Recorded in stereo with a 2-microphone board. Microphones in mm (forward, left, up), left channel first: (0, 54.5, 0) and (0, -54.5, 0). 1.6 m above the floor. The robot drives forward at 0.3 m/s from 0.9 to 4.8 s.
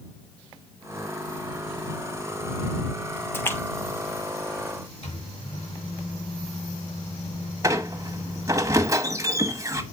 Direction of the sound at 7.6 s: 30° right (ahead or behind).